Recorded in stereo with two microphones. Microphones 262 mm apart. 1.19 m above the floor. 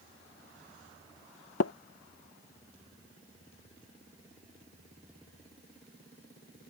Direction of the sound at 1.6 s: 70° left (ahead or behind).